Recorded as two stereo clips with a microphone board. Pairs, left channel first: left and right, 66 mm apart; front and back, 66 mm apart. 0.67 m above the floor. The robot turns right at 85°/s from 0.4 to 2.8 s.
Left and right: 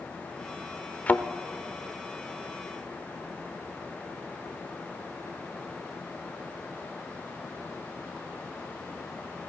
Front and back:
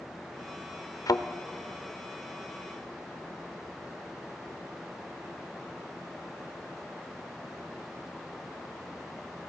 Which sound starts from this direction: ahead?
A thud, at 1.1 s.